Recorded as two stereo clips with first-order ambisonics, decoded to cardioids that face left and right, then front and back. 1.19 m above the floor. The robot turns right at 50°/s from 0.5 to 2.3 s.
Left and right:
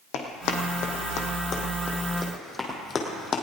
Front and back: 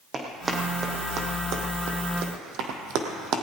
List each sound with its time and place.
0.1 s running footsteps: 110° left, 2.5 m; by 3.4 s 150° left, 2 m